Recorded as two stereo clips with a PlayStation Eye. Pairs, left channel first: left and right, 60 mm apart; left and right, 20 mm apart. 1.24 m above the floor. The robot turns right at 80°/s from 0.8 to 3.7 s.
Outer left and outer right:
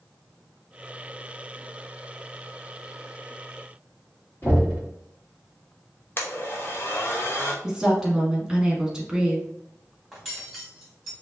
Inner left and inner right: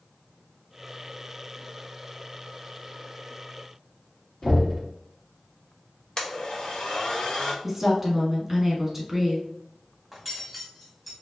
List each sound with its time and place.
4.4 s knocking: 40° left (ahead or behind), 2.5 m
6.2 s a blender: 40° left (ahead or behind), 1.0 m
7.6 s a woman speaking: 10° right (ahead or behind), 1.8 m
10.1 s cutlery clinking: 5° left (ahead or behind), 2.5 m